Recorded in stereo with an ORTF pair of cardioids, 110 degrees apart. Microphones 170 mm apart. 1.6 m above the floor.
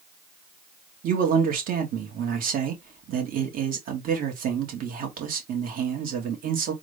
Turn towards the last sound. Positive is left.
turn(degrees=-65)